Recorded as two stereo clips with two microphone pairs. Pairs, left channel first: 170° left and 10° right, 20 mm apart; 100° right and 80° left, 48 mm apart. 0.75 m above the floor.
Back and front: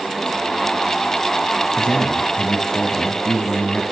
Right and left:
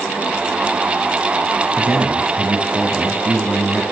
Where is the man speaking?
140° left, 5 m.